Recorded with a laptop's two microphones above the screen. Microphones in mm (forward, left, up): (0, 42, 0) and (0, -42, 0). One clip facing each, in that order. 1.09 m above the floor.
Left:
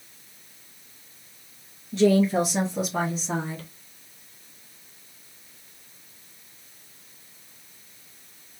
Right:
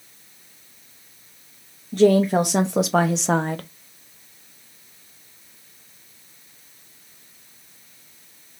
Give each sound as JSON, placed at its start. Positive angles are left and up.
{"t": 1.9, "sound": "a woman speaking", "side_deg": -50, "distance_m": 0.9}